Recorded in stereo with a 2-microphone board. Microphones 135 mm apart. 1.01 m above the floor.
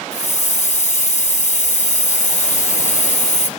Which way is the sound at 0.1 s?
65° left (ahead or behind).